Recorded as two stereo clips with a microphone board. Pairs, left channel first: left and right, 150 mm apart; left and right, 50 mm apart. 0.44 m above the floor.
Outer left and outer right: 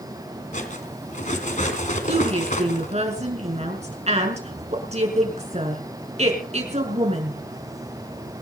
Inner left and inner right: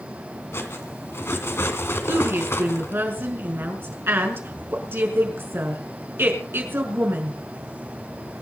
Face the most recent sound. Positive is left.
turn(degrees=-45)  # may be behind; listen again after turning